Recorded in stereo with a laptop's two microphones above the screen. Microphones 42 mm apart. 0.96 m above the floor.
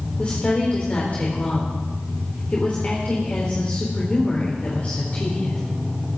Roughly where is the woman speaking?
Left.